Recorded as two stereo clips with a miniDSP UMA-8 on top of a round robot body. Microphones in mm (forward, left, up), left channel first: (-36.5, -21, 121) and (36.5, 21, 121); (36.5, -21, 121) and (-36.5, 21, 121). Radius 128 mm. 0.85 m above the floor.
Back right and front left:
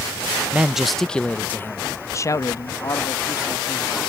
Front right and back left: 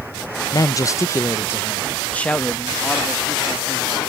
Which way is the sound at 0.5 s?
40° right.